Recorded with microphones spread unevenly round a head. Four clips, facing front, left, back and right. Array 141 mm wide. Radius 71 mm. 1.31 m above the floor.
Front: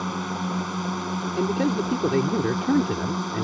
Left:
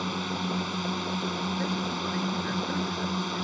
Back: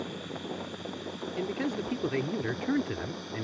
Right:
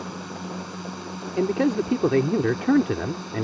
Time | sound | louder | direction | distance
0.0 | a drone | left 3 dB, front 9 dB | 15° left | ?
1.4 | a man speaking | right 9 dB, front 8 dB | 65° right | ?